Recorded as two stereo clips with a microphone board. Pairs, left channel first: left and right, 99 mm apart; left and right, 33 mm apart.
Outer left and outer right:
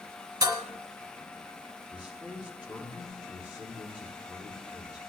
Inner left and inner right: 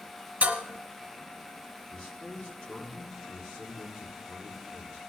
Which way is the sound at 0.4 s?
40° right (ahead or behind).